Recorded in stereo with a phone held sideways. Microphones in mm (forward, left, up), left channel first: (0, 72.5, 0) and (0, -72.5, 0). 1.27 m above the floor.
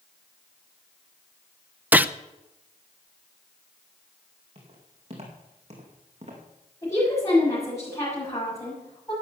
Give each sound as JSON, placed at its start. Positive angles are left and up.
{"t": 1.9, "sound": "a gunshot", "side_deg": -10, "distance_m": 0.5}
{"t": 4.5, "sound": "footsteps", "side_deg": -45, "distance_m": 5.0}
{"t": 6.8, "sound": "a woman speaking", "side_deg": 25, "distance_m": 7.0}